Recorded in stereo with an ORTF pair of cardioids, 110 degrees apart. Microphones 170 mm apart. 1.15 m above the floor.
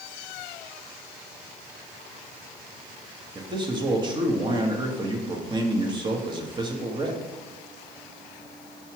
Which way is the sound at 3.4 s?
25° right.